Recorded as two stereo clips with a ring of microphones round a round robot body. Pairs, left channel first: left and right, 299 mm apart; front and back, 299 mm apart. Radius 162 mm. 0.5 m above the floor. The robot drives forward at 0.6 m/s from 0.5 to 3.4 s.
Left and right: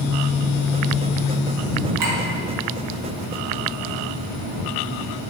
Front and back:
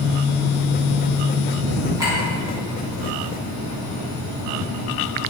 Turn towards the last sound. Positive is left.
turn(degrees=-120)